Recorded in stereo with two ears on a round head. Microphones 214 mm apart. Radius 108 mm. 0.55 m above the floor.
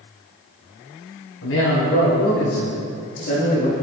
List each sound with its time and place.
1.4 s a man speaking: 70° left (ahead or behind), 4.5 m; by 3.7 s 45° left (ahead or behind), 4.5 m